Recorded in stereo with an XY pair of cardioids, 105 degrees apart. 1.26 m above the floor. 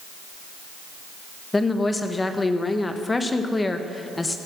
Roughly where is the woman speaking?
Ahead.